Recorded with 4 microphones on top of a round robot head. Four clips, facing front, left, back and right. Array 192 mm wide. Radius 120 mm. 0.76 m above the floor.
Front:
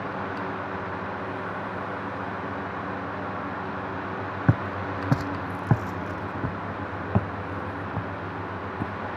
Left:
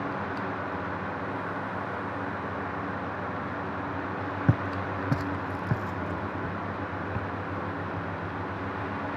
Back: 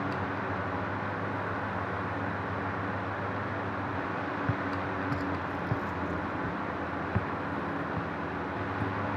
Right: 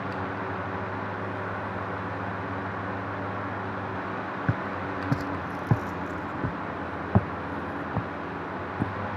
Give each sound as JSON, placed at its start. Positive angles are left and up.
{"t": 4.5, "sound": "footsteps", "azimuth_deg": 20}